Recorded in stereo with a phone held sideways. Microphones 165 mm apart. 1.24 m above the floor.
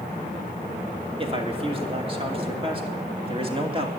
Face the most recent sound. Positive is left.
turn(degrees=-35)  # may be behind; listen again after turning